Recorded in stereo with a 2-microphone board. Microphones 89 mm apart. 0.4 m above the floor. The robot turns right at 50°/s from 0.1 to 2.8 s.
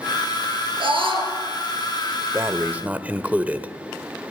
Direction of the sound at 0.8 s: 75° right (ahead or behind).